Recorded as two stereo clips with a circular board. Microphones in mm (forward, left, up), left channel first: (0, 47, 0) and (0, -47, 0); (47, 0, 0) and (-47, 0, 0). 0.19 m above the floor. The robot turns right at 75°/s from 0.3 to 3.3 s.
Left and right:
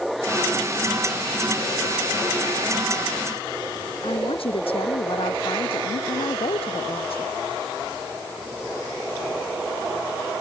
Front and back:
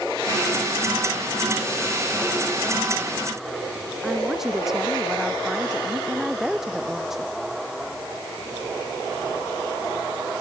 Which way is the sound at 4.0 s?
95° left.